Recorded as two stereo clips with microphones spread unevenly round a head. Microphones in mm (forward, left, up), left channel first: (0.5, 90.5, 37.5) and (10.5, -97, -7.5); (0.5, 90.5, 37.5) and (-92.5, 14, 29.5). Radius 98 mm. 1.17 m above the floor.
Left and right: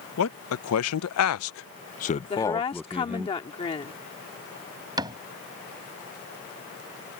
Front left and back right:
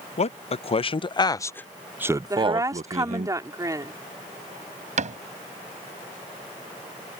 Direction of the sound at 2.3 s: 155° left.